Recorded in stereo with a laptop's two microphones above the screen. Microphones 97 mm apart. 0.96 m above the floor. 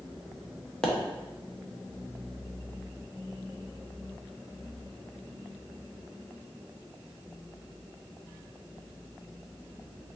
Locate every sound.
0.8 s a pop: 10° left (ahead or behind), 1.0 m